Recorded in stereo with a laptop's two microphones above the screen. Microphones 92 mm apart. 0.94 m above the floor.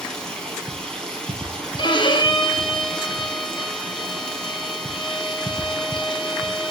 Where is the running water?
10° left (ahead or behind), 4.5 m.